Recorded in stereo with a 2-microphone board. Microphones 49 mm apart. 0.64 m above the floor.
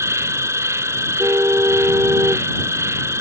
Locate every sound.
0.0 s an insect: 75° right (ahead or behind)
1.2 s a car horn: 65° right (ahead or behind)